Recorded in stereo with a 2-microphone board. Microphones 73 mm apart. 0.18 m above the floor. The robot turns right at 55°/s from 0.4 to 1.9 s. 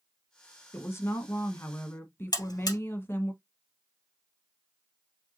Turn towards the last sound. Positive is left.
turn(degrees=60)  # may be behind; listen again after turning